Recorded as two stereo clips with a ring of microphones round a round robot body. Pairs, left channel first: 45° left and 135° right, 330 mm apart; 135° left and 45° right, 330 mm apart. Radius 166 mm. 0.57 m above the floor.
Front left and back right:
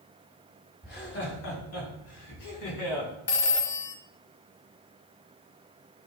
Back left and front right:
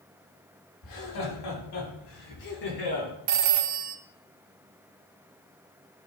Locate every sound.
0.8 s laughter: 105° left, 5 m; by 3.1 s 70° left, 6 m
3.3 s a phone ringing: 10° right, 0.8 m